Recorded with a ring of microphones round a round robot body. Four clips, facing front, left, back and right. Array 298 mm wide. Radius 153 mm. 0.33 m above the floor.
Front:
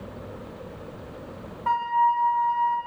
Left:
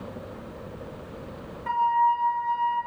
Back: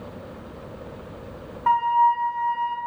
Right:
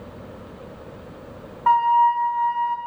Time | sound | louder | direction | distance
1.7 | a flute | right 6 dB, back 3 dB | 115° right | 2.5 m